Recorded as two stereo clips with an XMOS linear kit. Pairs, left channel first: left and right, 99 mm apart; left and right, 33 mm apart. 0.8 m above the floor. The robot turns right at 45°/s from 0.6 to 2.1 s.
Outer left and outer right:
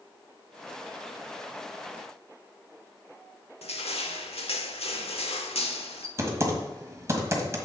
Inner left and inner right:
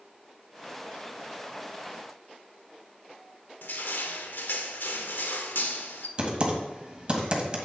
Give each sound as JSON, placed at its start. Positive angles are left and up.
{"t": 3.6, "sound": "crushing", "side_deg": 80, "distance_m": 0.9}
{"t": 6.2, "sound": "typing on a keyboard", "side_deg": -30, "distance_m": 1.5}